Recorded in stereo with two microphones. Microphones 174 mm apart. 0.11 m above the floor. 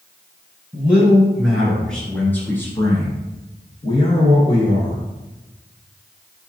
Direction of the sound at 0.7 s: 5° right (ahead or behind).